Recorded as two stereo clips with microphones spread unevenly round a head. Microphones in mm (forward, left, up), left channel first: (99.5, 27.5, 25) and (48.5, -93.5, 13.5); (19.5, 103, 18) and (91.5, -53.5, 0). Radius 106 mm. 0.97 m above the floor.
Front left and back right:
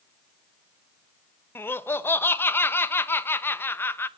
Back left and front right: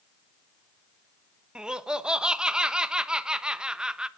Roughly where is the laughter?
Ahead.